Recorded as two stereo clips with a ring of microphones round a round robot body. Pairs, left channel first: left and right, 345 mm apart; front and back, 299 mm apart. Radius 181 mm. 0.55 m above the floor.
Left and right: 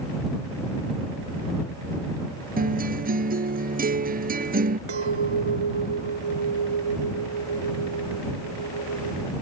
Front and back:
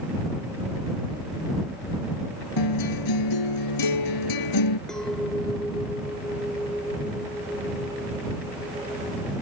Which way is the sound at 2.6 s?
25° right.